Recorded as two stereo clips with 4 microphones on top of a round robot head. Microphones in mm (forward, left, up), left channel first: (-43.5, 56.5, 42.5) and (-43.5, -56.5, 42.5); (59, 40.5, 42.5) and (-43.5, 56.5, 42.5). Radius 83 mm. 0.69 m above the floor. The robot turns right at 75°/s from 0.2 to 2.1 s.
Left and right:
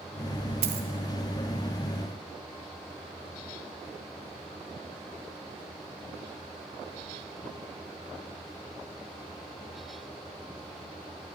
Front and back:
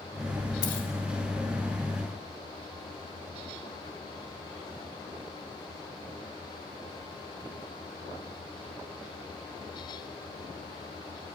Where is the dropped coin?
65° right, 0.6 m; by 0.9 s 45° right, 0.6 m.